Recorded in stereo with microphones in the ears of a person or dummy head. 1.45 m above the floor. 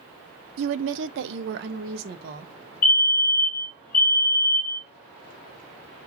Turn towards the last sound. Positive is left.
turn(degrees=50)  # may be behind; listen again after turning